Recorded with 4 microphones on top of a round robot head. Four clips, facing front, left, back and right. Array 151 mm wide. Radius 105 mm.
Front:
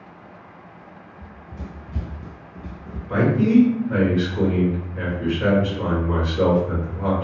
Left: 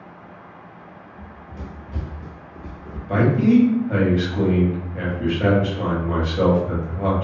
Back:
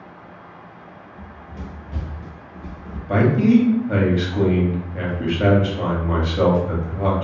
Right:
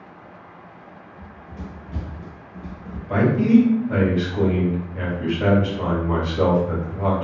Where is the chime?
No chime in this recording.